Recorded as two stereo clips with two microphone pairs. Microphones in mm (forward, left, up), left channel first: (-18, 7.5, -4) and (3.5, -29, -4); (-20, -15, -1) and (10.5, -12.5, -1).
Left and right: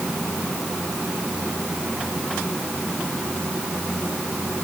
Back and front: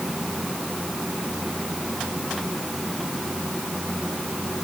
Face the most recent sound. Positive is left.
No sound to turn to.